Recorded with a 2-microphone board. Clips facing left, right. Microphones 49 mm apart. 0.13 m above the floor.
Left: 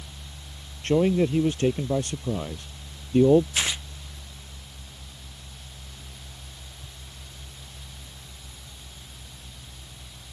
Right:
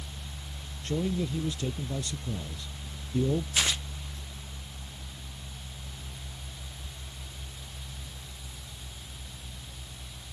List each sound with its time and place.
0.8 s a man speaking: 55° left (ahead or behind)
3.5 s tearing paper: 20° left (ahead or behind)